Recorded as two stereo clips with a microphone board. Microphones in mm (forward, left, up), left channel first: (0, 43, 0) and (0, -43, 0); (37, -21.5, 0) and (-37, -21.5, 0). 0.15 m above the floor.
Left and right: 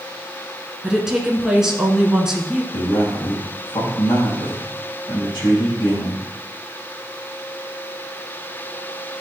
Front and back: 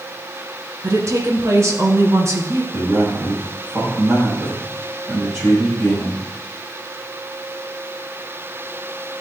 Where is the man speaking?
125° left, 4 m.